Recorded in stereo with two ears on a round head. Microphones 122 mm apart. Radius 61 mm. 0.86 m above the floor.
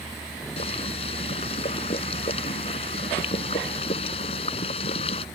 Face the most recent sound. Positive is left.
turn(degrees=45)  # may be behind; listen again after turning